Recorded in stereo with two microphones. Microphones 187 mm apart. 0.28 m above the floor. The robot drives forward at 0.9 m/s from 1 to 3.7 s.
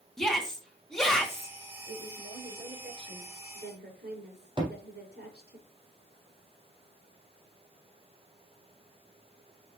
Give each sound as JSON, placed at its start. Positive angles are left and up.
{"t": 0.2, "sound": "a shout", "side_deg": 0, "distance_m": 2.5}
{"t": 1.9, "sound": "a woman speaking", "side_deg": -70, "distance_m": 5.0}
{"t": 4.6, "sound": "a thud", "side_deg": -25, "distance_m": 3.5}